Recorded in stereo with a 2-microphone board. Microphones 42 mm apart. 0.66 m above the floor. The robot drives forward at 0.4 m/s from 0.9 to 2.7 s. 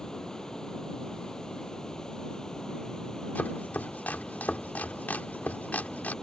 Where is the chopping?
45° left (ahead or behind).